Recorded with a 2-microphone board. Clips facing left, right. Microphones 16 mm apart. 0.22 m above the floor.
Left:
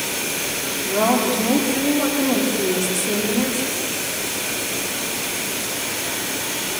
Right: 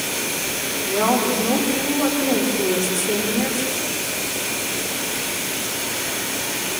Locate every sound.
0.8 s a woman speaking: 65° left (ahead or behind), 8.5 m